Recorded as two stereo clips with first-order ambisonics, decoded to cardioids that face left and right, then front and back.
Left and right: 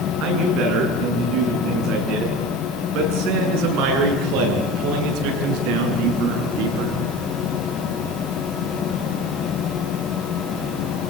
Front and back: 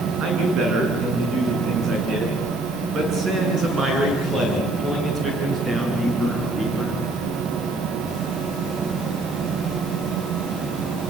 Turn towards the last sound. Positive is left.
turn(degrees=-105)